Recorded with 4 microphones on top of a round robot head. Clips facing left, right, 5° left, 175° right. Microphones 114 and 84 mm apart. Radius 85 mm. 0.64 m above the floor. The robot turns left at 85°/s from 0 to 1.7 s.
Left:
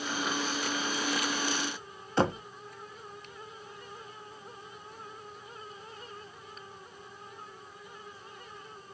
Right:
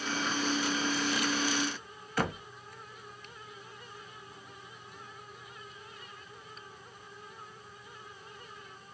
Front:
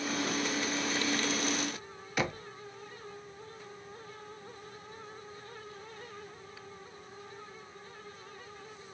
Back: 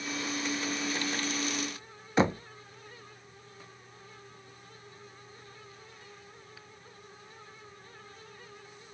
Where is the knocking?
135° left, 0.5 m.